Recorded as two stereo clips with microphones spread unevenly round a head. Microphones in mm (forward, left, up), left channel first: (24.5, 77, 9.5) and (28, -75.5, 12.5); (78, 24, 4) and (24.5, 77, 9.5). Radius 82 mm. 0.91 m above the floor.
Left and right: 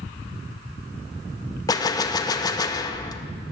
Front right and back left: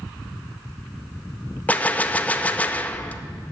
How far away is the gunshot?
About 0.6 m.